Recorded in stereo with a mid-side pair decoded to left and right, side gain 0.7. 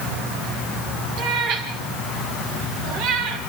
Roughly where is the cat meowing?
Ahead right.